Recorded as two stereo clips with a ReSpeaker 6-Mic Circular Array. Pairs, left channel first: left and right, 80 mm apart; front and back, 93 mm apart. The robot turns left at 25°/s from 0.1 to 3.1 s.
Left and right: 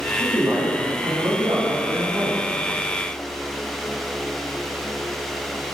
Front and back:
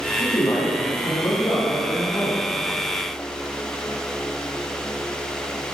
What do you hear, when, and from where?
0.2 s a man speaking: 10° right, 3 m; by 2.5 s 65° right, 3 m